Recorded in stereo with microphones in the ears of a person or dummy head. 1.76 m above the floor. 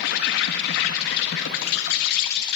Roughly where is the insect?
Left.